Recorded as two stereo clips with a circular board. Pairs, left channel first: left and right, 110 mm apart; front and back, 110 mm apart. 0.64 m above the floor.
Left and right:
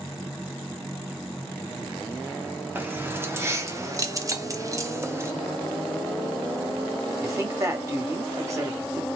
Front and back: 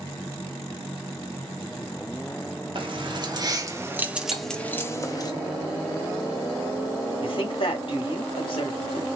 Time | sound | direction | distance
2.8 | keys jangling | 155° right | 1.1 m
4.3 | cutlery clinking | 145° right | 0.6 m
7.2 | a woman speaking | 30° right | 1.4 m